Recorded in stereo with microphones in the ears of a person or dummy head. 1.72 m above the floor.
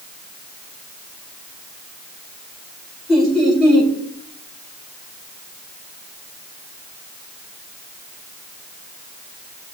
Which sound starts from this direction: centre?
Laughter, at 3.1 s.